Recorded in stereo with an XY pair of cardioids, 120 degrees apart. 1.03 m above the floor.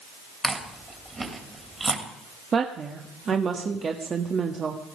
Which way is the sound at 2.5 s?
35° right.